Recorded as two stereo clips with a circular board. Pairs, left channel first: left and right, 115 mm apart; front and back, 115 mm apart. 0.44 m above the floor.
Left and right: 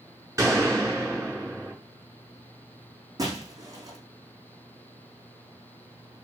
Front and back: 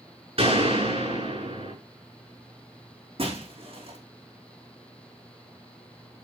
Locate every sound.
0.4 s a gunshot: 150° right, 6.5 m
3.2 s breaking glass: 145° right, 5 m